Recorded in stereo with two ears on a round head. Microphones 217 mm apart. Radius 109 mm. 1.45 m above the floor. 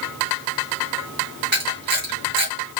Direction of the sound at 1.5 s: 40° right (ahead or behind).